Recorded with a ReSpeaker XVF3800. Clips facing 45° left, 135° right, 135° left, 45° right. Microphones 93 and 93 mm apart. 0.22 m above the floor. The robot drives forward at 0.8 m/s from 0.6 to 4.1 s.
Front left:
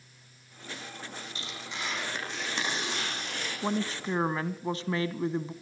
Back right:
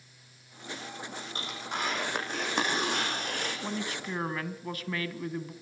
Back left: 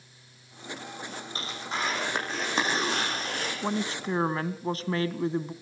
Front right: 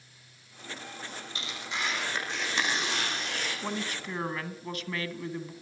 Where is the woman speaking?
75° left, 1.4 m; by 5.5 s 95° left, 1.4 m.